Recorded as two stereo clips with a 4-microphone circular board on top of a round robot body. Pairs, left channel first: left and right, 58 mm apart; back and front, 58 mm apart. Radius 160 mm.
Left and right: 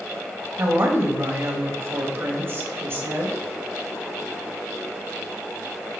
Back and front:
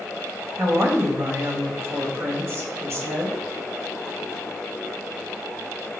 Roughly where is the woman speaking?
Ahead right.